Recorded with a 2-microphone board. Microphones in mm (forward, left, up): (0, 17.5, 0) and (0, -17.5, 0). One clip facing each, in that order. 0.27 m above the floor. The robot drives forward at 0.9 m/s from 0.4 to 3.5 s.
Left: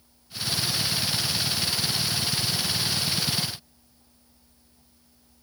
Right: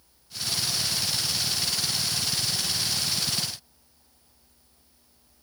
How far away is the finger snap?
No finger snap in this recording.